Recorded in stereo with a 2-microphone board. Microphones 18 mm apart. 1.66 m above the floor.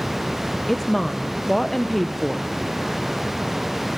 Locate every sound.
0.7 s a woman speaking: 15° left (ahead or behind), 0.8 m